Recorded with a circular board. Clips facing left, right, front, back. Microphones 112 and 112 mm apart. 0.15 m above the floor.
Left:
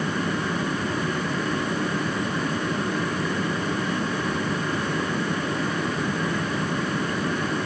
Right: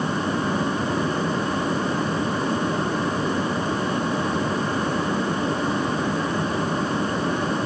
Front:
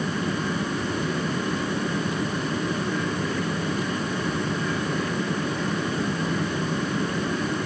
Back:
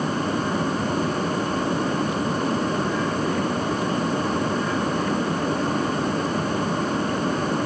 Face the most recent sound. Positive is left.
No sound to turn to.